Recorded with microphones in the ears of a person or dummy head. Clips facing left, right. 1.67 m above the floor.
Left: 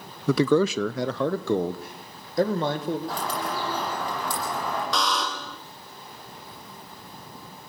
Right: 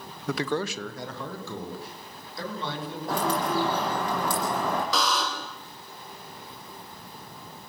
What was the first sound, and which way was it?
A man speaking, 85° left.